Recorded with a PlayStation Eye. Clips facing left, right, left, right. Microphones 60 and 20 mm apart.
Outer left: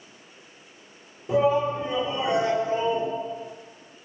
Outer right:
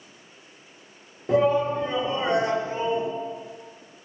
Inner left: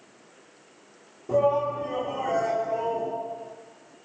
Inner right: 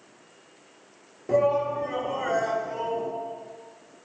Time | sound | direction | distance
1.3 | a shout | 55° right (ahead or behind) | 3 m